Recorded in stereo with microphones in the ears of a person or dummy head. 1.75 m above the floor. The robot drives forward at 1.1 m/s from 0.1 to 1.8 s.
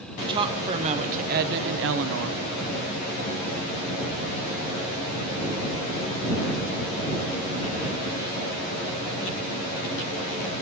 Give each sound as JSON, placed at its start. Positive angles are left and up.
{"t": 0.2, "sound": "a woman speaking", "side_deg": -25, "distance_m": 2.0}